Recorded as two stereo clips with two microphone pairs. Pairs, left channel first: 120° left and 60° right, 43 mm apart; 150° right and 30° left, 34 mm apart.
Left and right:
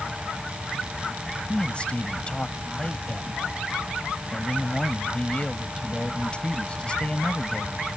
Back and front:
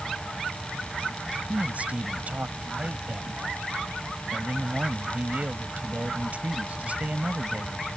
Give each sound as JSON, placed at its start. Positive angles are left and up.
{"t": 1.5, "sound": "a man speaking", "azimuth_deg": 55}